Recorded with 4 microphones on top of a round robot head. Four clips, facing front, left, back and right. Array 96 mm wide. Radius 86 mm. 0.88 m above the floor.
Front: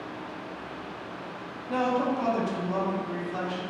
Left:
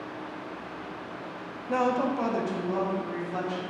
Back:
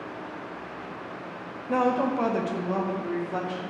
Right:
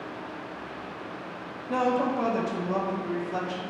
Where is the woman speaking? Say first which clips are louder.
Right 1 dB, back 2 dB; 145° left, 0.6 m; by 3.6 s 155° right, 1.2 m.